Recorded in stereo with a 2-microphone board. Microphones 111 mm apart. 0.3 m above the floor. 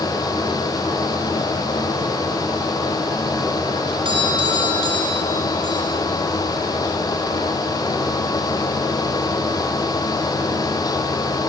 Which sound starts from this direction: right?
A doorbell, at 4.0 s.